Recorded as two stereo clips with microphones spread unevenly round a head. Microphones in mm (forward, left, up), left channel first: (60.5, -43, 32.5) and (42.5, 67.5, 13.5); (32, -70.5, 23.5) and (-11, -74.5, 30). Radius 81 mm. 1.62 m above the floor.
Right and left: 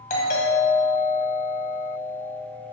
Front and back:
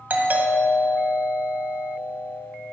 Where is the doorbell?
130° right, 1.5 m.